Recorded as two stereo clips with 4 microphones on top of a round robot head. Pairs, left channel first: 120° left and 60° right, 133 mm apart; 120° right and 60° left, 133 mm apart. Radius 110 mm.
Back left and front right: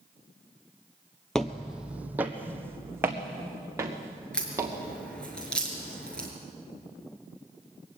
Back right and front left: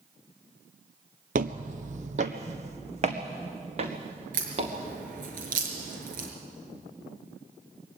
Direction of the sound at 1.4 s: 35° left.